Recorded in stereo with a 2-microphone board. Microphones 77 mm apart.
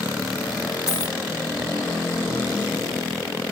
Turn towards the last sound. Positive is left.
turn(degrees=-10)  # may be behind; listen again after turning